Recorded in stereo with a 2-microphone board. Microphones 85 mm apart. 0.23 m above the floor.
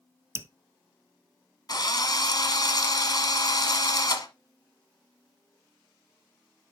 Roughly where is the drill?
Left.